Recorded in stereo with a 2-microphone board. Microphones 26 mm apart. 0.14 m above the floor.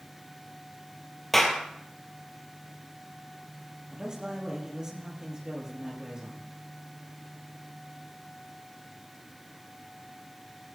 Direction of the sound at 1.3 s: 10° left (ahead or behind).